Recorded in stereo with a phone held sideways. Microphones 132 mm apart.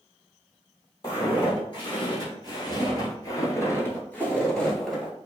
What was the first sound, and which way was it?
Footsteps, 35° left (ahead or behind).